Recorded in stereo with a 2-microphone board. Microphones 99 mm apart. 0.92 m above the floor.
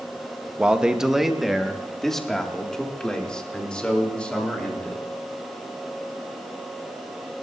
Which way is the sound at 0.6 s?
15° right (ahead or behind).